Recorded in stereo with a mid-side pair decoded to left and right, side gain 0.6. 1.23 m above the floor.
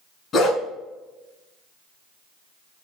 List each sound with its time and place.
0.3 s a dog barking: 40° left, 2.5 m